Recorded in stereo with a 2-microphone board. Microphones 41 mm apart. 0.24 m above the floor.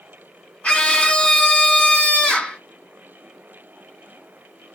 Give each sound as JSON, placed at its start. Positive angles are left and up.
{"t": 0.6, "sound": "a scream", "side_deg": 35, "distance_m": 2.0}